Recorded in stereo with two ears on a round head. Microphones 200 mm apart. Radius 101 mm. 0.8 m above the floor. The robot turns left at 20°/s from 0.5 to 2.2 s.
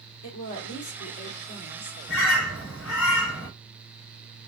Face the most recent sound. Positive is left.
turn(degrees=60)  # may be behind; listen again after turning